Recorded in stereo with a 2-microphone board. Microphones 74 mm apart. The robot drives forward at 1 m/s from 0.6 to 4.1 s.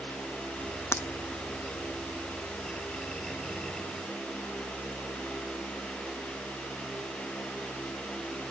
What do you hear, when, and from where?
0.9 s breaking glass: 35° left (ahead or behind); by 1.1 s 40° left (ahead or behind)